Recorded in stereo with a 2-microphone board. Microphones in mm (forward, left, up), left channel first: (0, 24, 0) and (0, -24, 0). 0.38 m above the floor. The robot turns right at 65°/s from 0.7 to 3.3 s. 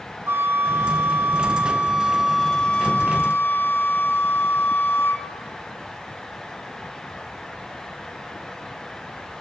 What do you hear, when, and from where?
0.3 s a flute: 105° right, 0.9 m; by 5.2 s 65° left, 0.9 m